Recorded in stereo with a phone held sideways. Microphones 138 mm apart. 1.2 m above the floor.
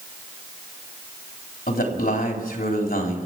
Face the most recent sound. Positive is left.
turn(degrees=75)  # may be behind; listen again after turning